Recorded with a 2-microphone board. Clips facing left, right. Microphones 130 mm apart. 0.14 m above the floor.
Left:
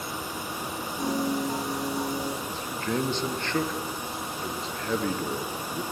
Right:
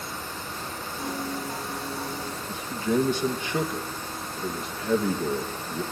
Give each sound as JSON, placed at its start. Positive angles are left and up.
{"t": 1.0, "sound": "a piano", "side_deg": 30, "distance_m": 5.5}
{"t": 2.5, "sound": "a man speaking", "side_deg": -10, "distance_m": 2.5}